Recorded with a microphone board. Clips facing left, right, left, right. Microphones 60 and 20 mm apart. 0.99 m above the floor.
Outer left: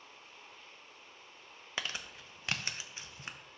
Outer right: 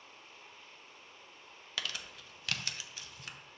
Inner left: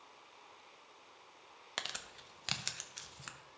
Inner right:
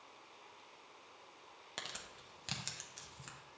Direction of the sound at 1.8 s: 25° left (ahead or behind).